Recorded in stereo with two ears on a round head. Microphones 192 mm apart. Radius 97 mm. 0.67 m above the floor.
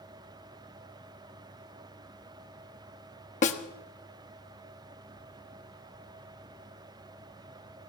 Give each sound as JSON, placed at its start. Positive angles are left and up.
{"t": 3.4, "sound": "a snare drum", "side_deg": 35, "distance_m": 1.1}